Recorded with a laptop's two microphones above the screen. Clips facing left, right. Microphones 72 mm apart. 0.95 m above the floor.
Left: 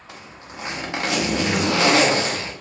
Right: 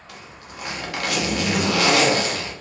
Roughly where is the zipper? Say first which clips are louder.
Left 1 dB; left.